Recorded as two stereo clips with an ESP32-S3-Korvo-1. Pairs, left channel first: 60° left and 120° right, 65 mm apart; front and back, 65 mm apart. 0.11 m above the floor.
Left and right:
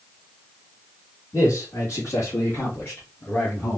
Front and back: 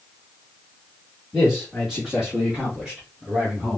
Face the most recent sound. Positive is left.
turn(degrees=110)